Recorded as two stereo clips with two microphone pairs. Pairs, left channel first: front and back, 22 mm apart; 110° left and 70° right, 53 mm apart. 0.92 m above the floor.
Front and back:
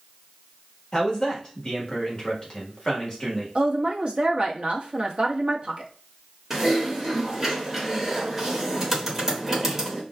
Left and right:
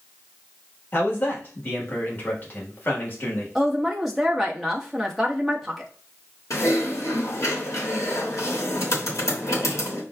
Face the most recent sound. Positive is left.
turn(degrees=105)